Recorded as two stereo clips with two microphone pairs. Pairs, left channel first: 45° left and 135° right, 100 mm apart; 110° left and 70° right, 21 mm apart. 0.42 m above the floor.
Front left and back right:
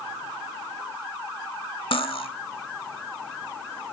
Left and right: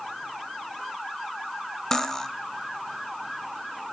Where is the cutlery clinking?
50° left, 1.3 m.